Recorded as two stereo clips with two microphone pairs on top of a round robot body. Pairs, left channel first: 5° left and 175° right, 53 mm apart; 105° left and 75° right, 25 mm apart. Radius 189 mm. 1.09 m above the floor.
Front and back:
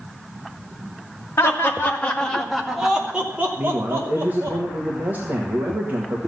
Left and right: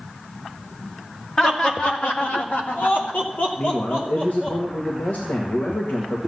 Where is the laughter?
45° left, 2.5 m; by 4.6 s 140° left, 4 m.